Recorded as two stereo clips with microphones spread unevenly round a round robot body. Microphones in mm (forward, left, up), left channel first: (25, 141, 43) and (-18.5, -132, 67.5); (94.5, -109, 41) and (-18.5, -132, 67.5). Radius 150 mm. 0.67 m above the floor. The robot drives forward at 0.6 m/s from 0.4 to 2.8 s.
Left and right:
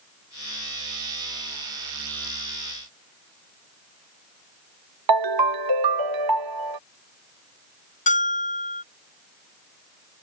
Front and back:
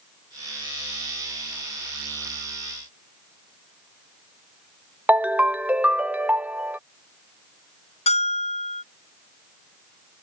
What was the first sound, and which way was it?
A ringtone, 90° right.